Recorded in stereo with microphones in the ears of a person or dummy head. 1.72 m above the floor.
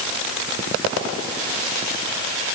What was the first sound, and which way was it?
Only background noise.